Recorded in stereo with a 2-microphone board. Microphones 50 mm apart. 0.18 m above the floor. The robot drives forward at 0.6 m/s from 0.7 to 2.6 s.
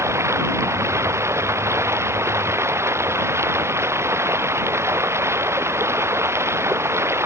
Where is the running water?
60° right (ahead or behind); by 7.3 s 55° right (ahead or behind).